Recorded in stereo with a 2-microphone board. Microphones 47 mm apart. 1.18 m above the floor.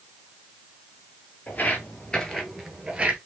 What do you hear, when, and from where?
1.5 s footsteps: 35° left (ahead or behind), 1.5 m; by 3.2 s 25° right (ahead or behind), 1.2 m